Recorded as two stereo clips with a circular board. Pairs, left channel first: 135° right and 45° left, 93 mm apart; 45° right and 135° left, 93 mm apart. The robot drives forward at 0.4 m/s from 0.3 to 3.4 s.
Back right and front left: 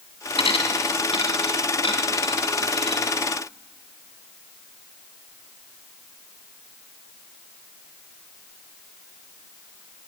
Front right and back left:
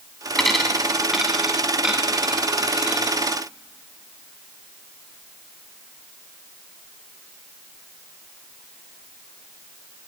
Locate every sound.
0.4 s a dropped coin: 130° right, 2 m; by 3.1 s 150° right, 3 m